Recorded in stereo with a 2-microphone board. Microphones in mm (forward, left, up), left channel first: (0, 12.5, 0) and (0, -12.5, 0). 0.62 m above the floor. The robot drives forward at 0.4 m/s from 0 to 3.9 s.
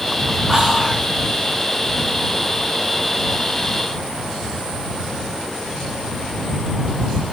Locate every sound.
0.5 s whispering: 20° right (ahead or behind), 1.3 m; by 1.1 s 15° right (ahead or behind), 1.3 m